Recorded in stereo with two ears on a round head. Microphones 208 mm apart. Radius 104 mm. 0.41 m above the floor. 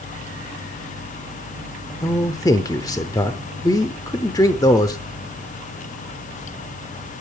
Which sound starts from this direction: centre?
A man speaking, at 2.0 s.